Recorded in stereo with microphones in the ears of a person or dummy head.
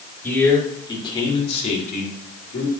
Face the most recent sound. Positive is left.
turn(degrees=65)  # may be behind; listen again after turning